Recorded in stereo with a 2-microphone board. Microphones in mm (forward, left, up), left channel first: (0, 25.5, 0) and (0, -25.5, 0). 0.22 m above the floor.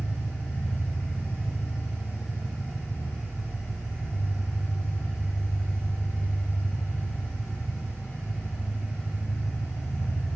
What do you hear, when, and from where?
0.0 s an engine running: 25° right (ahead or behind), 2 m